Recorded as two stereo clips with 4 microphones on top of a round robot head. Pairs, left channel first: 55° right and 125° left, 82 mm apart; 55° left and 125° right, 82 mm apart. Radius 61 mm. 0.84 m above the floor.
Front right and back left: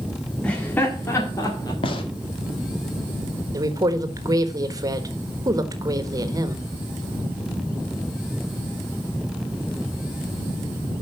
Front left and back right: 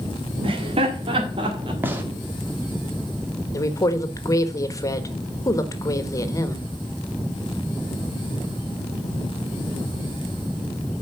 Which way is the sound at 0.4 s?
130° right.